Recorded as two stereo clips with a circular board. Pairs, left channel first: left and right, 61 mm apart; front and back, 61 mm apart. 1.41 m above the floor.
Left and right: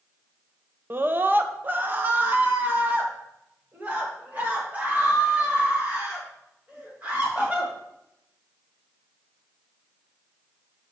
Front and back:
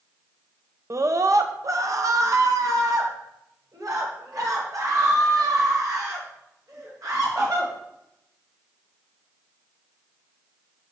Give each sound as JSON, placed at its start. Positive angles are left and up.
{"t": 0.9, "sound": "a scream", "azimuth_deg": -145, "distance_m": 0.6}